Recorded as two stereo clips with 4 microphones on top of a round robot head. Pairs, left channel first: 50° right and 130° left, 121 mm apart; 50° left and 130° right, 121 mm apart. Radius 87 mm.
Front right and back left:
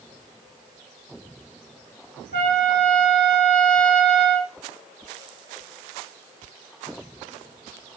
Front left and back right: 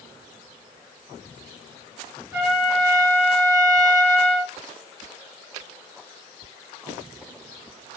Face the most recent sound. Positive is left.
turn(degrees=-60)